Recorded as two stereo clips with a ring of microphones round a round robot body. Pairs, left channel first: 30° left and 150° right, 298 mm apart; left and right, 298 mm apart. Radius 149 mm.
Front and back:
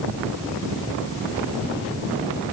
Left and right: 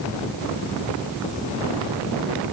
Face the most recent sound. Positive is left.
No sound to turn to.